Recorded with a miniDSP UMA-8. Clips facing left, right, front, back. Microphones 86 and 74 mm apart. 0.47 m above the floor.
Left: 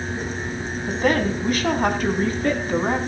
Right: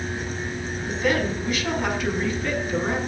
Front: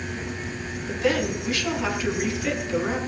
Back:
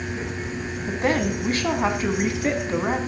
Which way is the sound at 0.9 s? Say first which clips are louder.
Left 3 dB, back 1 dB; 130° left.